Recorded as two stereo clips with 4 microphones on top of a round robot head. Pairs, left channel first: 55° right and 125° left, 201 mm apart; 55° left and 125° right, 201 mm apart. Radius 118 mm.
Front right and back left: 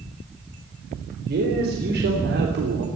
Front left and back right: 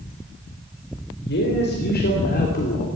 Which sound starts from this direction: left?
A man speaking, at 1.2 s.